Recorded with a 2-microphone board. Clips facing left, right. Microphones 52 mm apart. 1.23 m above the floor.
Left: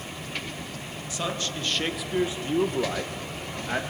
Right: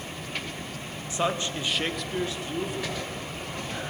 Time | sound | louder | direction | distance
1.1 | a man speaking | right 4 dB | 25° right (ahead or behind) | 1.5 m